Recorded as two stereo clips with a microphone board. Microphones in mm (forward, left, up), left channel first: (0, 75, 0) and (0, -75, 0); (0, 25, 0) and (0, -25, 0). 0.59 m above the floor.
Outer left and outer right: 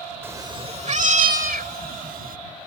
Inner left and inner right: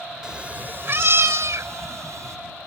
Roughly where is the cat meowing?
Centre.